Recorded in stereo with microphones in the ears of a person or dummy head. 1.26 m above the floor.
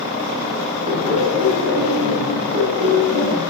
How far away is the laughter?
About 4 m.